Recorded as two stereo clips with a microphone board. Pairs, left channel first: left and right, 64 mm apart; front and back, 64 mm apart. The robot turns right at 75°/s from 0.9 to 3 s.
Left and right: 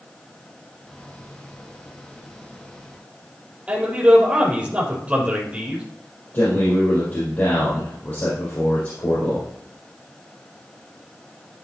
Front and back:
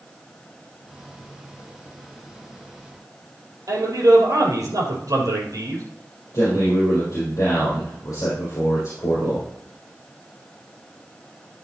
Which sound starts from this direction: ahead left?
A man speaking, at 6.3 s.